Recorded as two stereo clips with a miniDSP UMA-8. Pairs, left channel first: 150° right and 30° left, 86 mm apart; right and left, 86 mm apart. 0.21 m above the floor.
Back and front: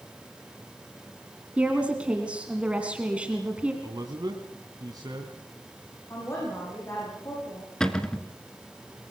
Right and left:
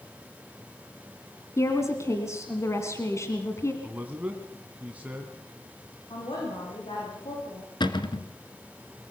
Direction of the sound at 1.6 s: 45° right.